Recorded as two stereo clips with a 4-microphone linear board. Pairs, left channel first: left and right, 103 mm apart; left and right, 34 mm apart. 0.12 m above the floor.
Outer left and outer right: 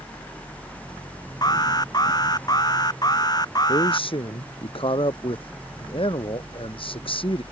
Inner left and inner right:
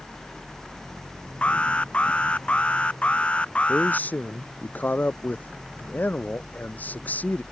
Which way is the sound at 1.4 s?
35° left (ahead or behind).